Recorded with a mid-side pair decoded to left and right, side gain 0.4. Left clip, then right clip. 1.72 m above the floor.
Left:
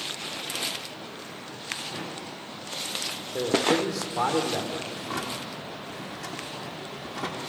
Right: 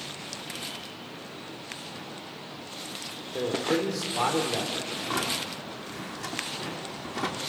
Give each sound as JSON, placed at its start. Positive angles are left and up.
{"t": 3.3, "sound": "a man speaking", "azimuth_deg": 15, "distance_m": 4.5}
{"t": 4.9, "sound": "a drawer", "azimuth_deg": -20, "distance_m": 3.0}